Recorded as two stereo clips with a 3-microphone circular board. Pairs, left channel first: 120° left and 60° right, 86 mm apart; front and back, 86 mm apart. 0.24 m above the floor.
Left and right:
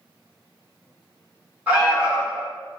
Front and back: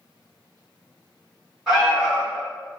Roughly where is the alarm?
Right.